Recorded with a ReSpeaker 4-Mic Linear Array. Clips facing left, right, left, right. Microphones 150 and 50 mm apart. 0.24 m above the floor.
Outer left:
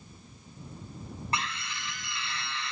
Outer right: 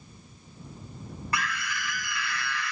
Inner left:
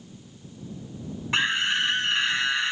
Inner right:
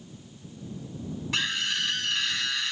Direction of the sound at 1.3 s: 30° left (ahead or behind).